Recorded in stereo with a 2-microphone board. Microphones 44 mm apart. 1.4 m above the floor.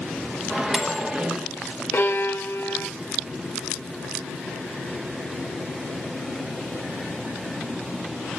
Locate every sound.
0.5 s a microwave: 15° right (ahead or behind), 1.0 m
1.9 s a violin: 55° left (ahead or behind), 0.8 m